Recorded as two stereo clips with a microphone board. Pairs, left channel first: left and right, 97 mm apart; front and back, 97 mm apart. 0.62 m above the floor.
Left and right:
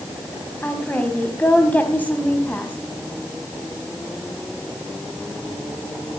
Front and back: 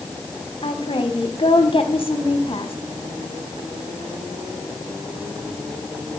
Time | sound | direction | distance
0.6 | a woman speaking | 15° left | 4 m